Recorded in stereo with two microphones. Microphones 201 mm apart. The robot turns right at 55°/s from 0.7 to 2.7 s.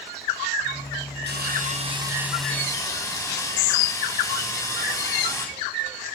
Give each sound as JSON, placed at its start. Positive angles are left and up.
{"t": 1.3, "sound": "sawing", "azimuth_deg": -65, "distance_m": 3.0}